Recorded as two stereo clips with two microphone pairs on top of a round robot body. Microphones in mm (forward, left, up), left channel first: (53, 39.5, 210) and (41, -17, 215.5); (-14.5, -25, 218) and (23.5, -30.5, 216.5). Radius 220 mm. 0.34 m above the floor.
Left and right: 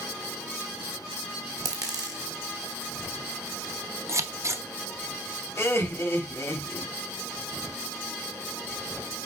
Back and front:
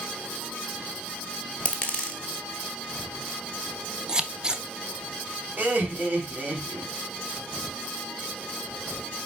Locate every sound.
1.6 s a dropped coin: 125° right, 1.0 m
4.1 s scissors: 75° right, 1.2 m
5.6 s laughter: 40° left, 3 m